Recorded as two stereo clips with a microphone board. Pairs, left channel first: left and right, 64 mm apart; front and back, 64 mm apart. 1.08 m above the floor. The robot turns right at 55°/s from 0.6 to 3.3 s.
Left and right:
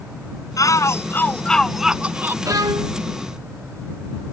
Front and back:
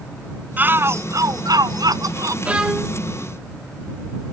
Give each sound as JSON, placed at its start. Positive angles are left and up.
{"t": 0.6, "sound": "a shout", "azimuth_deg": 120}
{"t": 2.5, "sound": "a violin", "azimuth_deg": -115}